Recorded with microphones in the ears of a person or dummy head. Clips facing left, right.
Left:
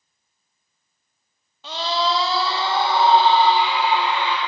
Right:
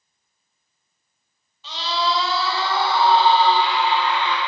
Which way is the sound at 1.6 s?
50° left (ahead or behind).